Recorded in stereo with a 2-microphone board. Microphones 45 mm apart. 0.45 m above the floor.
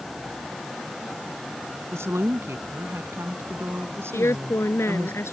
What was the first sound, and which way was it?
A woman speaking, 80° right.